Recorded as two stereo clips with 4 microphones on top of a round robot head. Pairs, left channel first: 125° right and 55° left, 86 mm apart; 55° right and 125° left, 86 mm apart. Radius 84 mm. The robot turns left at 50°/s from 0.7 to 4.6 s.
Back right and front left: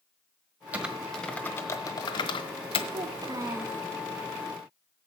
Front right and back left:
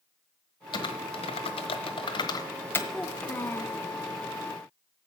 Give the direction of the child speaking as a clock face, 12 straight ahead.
11 o'clock.